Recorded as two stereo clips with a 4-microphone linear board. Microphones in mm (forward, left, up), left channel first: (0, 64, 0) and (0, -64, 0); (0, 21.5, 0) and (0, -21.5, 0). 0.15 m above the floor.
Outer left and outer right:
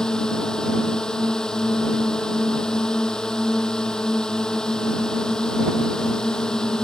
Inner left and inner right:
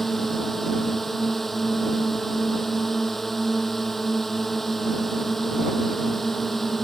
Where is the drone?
5° left (ahead or behind).